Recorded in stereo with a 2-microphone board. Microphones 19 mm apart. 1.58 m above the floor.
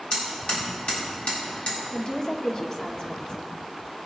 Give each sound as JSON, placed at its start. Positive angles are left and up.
{"t": 0.1, "sound": "hammering", "side_deg": 75, "distance_m": 4.0}
{"t": 1.9, "sound": "a woman speaking", "side_deg": 30, "distance_m": 1.0}